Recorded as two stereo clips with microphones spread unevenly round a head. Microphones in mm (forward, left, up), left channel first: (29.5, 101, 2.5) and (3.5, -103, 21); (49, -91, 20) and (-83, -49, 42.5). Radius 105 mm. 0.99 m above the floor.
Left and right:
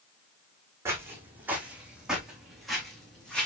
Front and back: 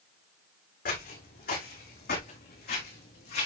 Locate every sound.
0.8 s footsteps: 20° right, 4 m; by 3.5 s 5° right, 4.5 m